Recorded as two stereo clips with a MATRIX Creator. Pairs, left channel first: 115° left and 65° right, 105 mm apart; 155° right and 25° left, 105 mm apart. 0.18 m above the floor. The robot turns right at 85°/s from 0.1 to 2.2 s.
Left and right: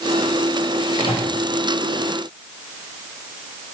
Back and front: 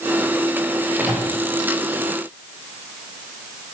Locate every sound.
1.0 s a microwave: 100° left, 2.5 m; by 1.3 s 130° left, 2.5 m